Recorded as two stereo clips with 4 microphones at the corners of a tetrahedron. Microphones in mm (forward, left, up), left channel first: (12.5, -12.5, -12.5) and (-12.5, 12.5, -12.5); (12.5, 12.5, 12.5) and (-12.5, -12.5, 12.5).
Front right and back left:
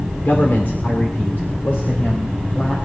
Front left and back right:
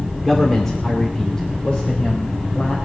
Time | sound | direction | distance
0.2 | a man speaking | 40° right | 1.8 m